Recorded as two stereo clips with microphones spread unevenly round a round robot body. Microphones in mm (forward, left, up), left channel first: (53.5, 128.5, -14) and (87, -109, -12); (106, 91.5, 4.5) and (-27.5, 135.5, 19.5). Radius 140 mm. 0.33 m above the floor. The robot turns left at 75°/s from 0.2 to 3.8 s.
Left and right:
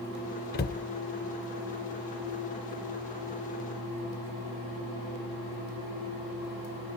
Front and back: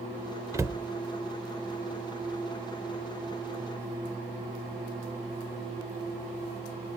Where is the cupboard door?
100° left, 0.6 m; by 0.8 s 75° left, 0.6 m.